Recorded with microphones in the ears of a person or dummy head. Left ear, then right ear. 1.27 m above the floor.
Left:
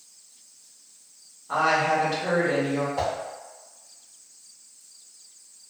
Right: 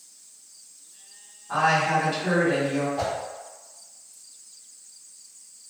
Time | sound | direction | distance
1.5 | a woman speaking | 10° left (ahead or behind) | 1.4 m
3.0 | a whoosh | 35° left (ahead or behind) | 0.6 m